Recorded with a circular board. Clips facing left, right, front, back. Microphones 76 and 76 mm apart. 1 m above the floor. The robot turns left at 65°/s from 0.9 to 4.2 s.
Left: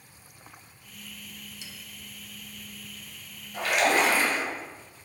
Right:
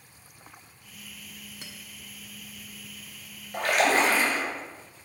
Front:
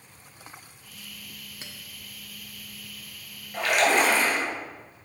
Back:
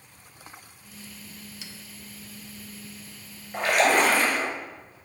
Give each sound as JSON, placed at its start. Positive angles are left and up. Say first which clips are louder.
{"t": 1.6, "sound": "a clink", "louder": "right 1 dB, even", "azimuth_deg": -55, "distance_m": 0.9}
{"t": 3.5, "sound": "a splash", "louder": "right 1 dB, back 1 dB", "azimuth_deg": -115, "distance_m": 2.5}